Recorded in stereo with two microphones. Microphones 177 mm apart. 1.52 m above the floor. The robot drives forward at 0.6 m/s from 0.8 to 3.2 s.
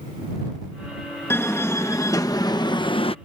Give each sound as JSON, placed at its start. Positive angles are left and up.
{"t": 1.3, "sound": "a door slam", "side_deg": 15}